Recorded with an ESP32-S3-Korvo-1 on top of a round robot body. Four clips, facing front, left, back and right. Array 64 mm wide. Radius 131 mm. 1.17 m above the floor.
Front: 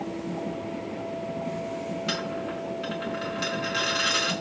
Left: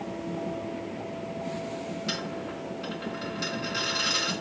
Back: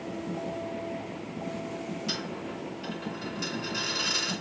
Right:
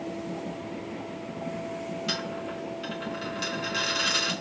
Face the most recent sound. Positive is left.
turn(degrees=10)